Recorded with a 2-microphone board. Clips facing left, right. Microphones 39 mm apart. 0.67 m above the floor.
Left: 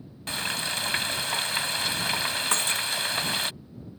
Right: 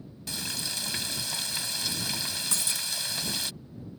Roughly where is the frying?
Left.